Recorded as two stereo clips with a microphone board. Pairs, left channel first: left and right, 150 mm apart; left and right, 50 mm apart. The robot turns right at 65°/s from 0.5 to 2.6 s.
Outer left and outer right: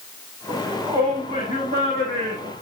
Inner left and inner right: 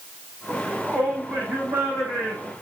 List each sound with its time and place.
0.5 s a shout: 175° left, 8 m; by 2.5 s 55° right, 8 m